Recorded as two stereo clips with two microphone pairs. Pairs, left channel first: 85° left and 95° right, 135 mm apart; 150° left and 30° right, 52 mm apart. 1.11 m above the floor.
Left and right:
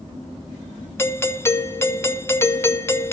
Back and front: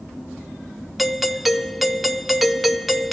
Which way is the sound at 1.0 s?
60° left.